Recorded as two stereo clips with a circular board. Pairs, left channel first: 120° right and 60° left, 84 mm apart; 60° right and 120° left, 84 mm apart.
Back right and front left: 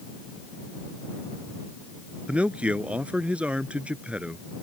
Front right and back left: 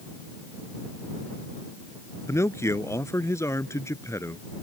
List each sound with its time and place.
2.3 s a man speaking: 10° right